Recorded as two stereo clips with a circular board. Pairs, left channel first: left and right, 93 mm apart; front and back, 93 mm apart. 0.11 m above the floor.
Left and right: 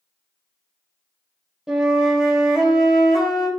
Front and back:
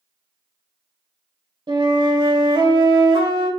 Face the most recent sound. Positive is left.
turn(degrees=-170)